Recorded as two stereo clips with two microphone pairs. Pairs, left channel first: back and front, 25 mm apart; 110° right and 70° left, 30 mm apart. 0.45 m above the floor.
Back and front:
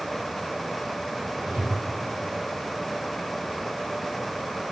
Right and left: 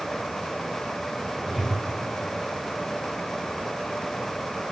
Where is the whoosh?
10° right, 7.5 m.